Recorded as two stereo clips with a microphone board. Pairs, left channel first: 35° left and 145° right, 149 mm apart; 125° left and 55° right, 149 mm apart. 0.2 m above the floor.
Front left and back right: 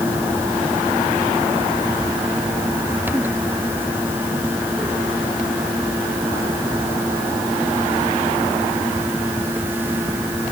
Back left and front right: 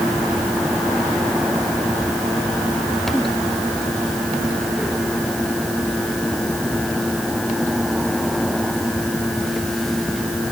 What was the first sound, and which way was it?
Only background noise.